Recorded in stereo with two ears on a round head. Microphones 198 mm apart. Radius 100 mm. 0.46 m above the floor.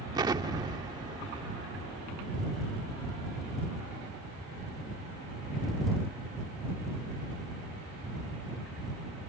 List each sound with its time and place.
0.1 s an explosion: 15° right (ahead or behind)